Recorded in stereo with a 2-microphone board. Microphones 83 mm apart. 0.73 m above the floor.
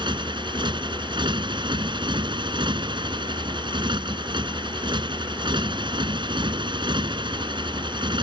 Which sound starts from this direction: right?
A motorcycle, at 0.0 s.